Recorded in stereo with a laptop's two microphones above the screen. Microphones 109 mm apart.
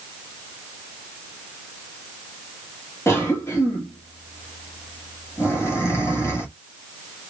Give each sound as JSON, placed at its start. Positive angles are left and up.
{"t": 3.1, "sound": "a cough", "side_deg": 25, "distance_m": 1.4}